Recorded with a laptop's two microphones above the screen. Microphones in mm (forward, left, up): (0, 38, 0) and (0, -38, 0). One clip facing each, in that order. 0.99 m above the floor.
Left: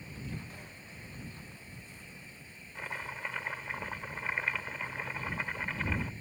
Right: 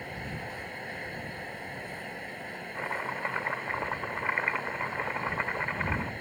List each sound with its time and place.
0.0 s a fan: 65° right (ahead or behind)
2.8 s chopping: 35° right (ahead or behind)